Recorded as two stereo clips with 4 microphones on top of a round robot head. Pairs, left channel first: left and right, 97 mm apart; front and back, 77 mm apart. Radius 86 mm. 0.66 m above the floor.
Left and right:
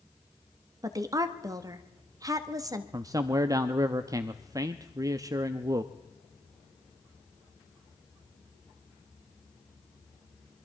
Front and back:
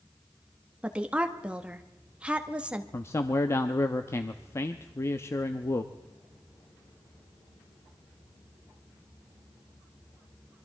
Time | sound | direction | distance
0.8 | a woman speaking | 110° right | 1.3 m
2.9 | a man speaking | 45° right | 0.8 m